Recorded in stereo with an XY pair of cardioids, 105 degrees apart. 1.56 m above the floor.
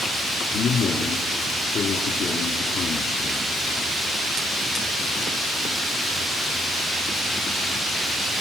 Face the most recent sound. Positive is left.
turn(degrees=60)